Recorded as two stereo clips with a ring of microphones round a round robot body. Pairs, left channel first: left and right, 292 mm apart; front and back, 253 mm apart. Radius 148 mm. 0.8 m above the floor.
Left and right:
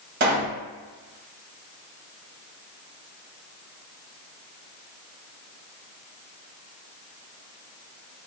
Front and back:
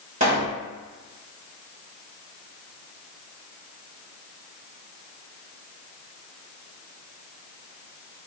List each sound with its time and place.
0.2 s a pop: 125° right, 1.2 m